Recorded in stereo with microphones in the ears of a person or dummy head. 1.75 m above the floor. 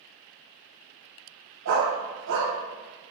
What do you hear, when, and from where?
1.6 s a dog barking: 60° right (ahead or behind), 4.5 m